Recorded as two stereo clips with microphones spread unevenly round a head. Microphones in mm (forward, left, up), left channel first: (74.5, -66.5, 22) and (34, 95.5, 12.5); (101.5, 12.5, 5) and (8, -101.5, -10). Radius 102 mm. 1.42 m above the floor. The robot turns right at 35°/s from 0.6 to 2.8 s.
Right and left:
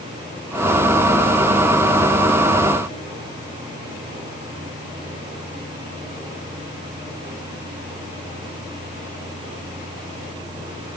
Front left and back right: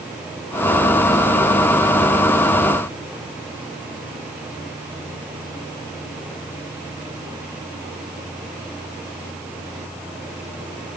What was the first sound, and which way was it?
Only background noise.